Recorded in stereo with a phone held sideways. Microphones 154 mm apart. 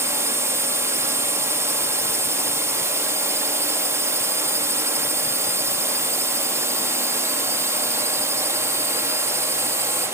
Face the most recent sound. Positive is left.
turn(degrees=-15)  # may be behind; listen again after turning